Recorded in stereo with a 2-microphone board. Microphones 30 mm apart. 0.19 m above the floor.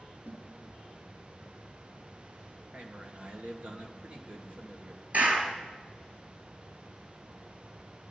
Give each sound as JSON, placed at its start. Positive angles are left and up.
{"t": 0.2, "sound": "a snare drum", "side_deg": -70, "distance_m": 5.0}
{"t": 2.7, "sound": "a man speaking", "side_deg": -50, "distance_m": 2.5}
{"t": 5.1, "sound": "a clap", "side_deg": -65, "distance_m": 3.0}